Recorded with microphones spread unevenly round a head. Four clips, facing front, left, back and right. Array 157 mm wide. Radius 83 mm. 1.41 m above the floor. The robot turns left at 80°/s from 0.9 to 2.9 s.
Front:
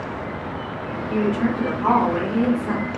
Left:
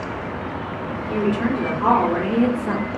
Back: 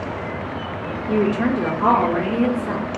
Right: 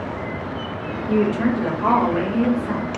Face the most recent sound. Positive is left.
turn(degrees=70)